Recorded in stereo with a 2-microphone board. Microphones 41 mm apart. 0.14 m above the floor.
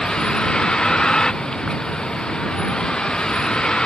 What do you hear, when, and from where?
0.0 s a vehicle: 20° left (ahead or behind)